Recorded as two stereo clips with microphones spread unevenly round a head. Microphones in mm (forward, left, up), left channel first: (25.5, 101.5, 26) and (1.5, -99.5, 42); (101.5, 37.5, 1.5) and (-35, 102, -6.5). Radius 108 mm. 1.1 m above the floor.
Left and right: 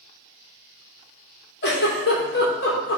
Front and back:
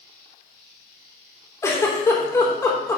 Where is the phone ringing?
I don't hear a phone ringing.